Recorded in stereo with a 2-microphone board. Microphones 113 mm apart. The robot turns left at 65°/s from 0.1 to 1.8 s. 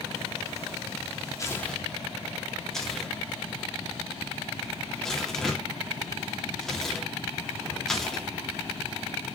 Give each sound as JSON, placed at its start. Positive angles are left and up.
{"t": 1.4, "sound": "tearing paper", "side_deg": 30, "distance_m": 2.5}